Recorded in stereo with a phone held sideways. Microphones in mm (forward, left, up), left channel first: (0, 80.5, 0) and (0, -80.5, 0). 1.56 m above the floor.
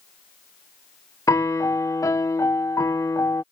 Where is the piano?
20° left (ahead or behind).